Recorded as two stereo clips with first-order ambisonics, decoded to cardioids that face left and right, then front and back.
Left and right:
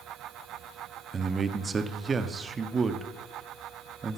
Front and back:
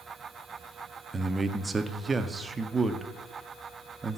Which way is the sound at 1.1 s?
125° right.